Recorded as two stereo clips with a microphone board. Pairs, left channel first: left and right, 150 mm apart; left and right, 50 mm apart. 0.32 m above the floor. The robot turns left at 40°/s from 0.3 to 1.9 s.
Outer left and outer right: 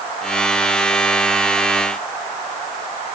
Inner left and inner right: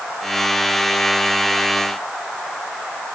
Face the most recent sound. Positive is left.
No sound to turn to.